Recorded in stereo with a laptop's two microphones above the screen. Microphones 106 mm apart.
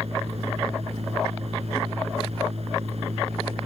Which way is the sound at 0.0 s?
75° right (ahead or behind).